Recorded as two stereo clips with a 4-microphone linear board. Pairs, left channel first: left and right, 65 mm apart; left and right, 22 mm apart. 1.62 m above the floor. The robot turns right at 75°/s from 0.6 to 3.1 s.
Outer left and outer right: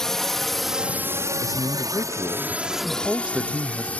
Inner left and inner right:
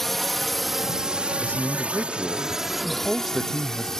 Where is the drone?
5° left (ahead or behind); by 4.0 s 20° left (ahead or behind).